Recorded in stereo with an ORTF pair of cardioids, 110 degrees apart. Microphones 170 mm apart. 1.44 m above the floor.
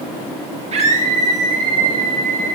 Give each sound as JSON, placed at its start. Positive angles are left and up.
{"t": 0.7, "sound": "a scream", "azimuth_deg": -40, "distance_m": 1.5}